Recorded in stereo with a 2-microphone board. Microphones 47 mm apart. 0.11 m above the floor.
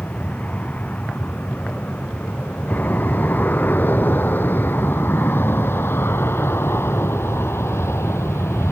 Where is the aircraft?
30° left (ahead or behind); by 8.7 s 65° left (ahead or behind).